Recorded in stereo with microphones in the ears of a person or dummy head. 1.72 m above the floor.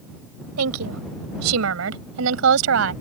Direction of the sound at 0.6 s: 85° right.